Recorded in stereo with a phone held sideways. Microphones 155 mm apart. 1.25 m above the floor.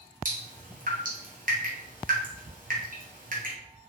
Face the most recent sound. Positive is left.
turn(degrees=-60)  # may be behind; listen again after turning